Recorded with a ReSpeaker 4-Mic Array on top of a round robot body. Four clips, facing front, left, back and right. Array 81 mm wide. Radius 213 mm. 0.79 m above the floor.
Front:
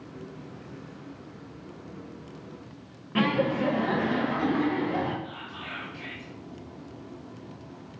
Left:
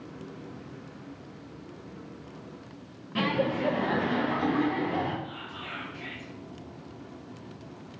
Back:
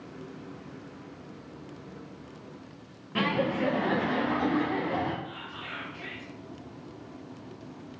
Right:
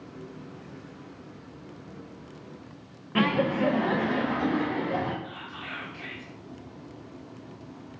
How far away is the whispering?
About 1.8 m.